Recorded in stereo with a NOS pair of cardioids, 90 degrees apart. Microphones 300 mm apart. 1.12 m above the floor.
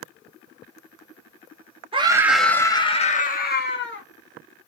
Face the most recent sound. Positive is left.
turn(degrees=40)